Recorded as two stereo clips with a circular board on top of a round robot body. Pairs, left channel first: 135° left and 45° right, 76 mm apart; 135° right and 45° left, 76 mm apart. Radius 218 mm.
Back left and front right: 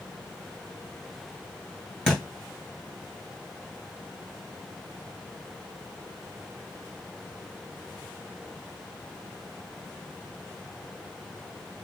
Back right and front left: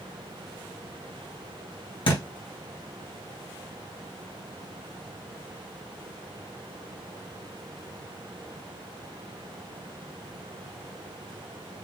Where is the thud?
140° right, 2.5 m.